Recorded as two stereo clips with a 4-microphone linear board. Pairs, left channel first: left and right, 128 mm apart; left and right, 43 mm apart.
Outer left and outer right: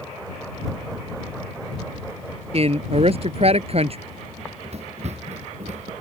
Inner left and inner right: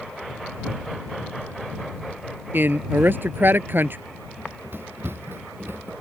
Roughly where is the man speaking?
Right.